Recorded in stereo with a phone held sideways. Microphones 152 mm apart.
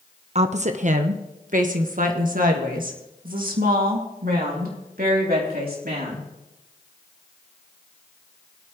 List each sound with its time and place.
0.3 s a woman speaking: 45° right (ahead or behind), 0.9 m; by 6.3 s 75° right (ahead or behind), 3.5 m